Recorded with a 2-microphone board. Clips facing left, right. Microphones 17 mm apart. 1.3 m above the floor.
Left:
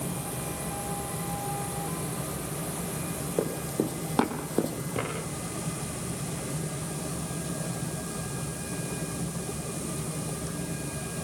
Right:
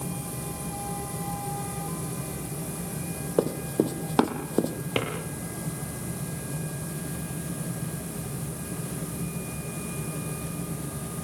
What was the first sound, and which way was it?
Running footsteps, 30° right (ahead or behind).